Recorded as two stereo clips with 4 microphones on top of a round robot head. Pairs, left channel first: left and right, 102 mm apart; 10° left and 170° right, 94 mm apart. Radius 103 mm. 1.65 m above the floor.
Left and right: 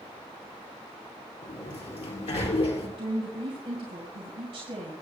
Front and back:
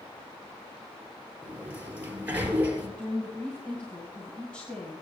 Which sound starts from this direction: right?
A woman speaking, at 3.0 s.